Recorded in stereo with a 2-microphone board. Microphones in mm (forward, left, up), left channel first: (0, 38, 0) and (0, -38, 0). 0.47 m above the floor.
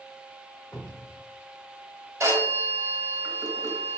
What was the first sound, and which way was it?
A cupboard door, 20° left (ahead or behind).